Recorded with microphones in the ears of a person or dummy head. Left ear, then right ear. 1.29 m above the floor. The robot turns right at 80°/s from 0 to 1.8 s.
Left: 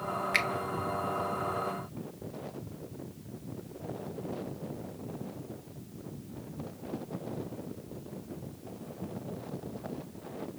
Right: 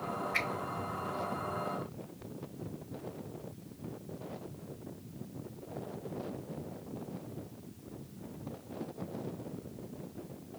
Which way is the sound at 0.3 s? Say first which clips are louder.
Left 5 dB; 55° left (ahead or behind).